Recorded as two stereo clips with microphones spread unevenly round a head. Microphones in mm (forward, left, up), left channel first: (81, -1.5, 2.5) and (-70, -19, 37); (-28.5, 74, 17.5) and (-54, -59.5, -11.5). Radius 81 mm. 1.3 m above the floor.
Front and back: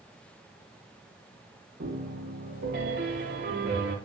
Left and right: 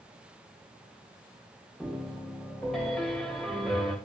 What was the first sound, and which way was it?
A piano, 165° left.